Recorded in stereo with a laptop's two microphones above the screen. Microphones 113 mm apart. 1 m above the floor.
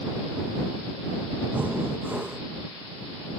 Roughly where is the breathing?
Centre.